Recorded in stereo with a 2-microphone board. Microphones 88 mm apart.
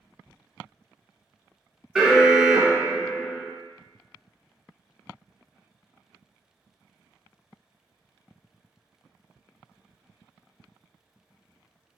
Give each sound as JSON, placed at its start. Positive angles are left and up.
{"t": 1.9, "sound": "an alarm", "side_deg": -5, "distance_m": 0.6}